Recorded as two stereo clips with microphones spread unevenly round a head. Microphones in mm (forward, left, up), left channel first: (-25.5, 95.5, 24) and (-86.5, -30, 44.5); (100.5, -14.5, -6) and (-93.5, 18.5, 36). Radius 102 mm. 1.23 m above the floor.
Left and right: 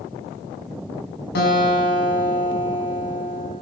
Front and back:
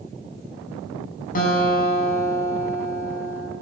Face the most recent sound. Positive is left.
turn(degrees=40)